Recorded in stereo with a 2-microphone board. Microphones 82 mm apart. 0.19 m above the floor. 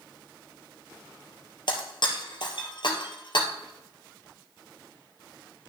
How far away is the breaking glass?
About 1.7 m.